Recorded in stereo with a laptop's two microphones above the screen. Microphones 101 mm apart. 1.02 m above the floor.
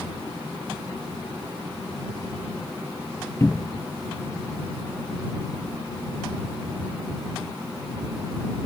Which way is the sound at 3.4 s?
25° left (ahead or behind).